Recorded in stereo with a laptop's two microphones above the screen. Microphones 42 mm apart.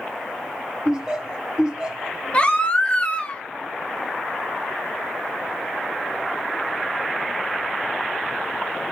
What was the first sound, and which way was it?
Laughter, 15° right (ahead or behind).